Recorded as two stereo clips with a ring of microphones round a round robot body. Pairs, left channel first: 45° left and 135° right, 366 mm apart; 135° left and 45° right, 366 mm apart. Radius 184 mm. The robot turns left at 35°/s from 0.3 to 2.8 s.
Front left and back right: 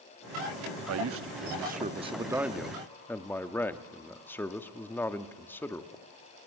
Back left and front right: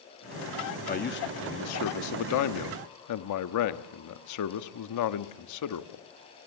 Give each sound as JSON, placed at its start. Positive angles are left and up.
{"t": 0.9, "sound": "a man speaking", "azimuth_deg": -165, "distance_m": 0.9}